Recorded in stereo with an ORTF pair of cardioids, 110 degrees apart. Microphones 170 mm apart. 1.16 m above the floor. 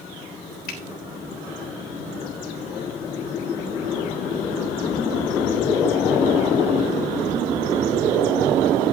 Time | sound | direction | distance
0.7 | a finger snap | 65° left | 3.5 m